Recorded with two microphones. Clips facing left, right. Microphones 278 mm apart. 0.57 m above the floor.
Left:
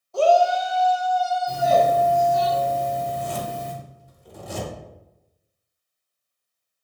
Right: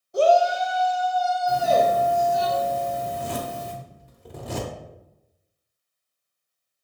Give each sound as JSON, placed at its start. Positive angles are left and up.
{"t": 0.1, "sound": "a shout", "side_deg": -20, "distance_m": 0.6}
{"t": 1.5, "sound": "a doorbell", "side_deg": -5, "distance_m": 1.6}
{"t": 3.0, "sound": "a zipper", "side_deg": -70, "distance_m": 0.8}